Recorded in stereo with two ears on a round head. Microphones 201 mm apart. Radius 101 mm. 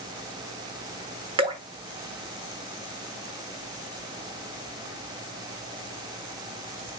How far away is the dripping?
About 1.2 m.